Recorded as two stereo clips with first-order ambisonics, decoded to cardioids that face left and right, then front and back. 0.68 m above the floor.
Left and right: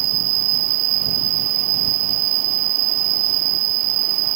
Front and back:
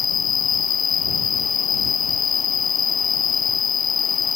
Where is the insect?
65° right.